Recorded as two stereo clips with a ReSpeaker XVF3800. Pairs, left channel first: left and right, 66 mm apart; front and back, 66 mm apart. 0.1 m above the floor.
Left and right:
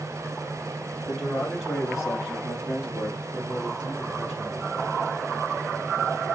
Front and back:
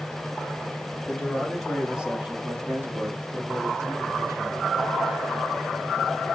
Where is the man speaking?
20° left, 1.7 m; by 4.9 s 165° right, 3.5 m.